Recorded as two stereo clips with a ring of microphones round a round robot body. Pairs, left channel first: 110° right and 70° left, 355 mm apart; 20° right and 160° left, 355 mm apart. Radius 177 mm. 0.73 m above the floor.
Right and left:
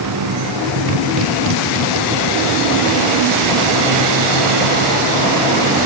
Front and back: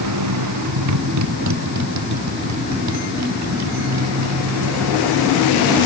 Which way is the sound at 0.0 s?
115° left.